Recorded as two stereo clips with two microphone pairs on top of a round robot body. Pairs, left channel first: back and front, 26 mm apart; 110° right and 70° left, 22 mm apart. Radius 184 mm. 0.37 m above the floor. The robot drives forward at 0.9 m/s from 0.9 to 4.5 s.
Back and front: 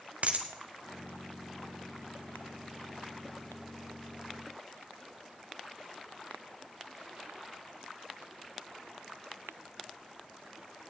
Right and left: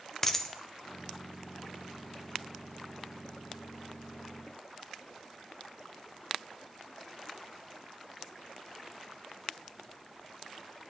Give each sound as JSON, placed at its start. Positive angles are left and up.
{"t": 0.2, "sound": "a dropped coin", "azimuth_deg": -35, "distance_m": 0.7}